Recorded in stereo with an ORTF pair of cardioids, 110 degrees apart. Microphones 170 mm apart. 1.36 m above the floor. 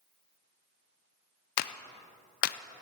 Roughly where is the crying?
No crying in this recording.